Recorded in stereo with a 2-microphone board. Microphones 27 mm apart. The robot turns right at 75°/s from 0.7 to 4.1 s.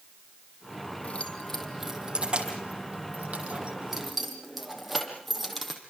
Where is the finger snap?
I don't hear a finger snap.